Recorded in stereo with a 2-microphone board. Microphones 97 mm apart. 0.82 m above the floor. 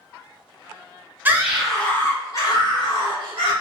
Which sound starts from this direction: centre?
A scream, at 1.2 s.